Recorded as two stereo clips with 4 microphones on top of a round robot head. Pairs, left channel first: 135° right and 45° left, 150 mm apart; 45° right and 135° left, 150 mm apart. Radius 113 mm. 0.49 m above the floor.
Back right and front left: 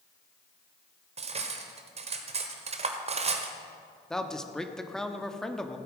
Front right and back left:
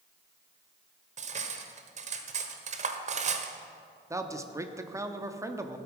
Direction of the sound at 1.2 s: 95° left.